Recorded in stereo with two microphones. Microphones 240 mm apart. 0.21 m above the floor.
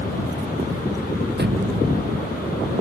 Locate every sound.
1.4 s a thud: 45° right (ahead or behind)